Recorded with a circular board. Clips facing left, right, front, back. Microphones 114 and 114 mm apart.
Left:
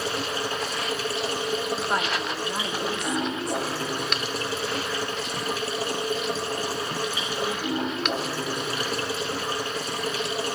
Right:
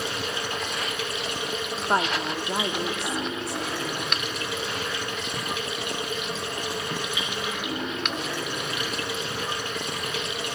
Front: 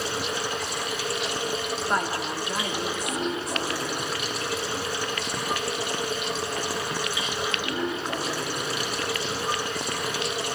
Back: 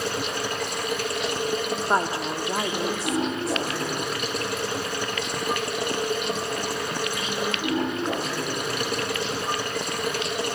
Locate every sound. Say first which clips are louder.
0.0 s running water: left 2 dB, back 1 dB; 145° left, 2 m
1.9 s a woman speaking: right 2 dB, back 3 dB; 135° right, 0.9 m